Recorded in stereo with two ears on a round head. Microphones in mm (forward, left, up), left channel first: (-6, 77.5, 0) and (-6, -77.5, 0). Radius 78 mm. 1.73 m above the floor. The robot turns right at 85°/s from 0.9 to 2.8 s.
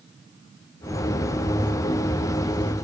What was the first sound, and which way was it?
Only background noise.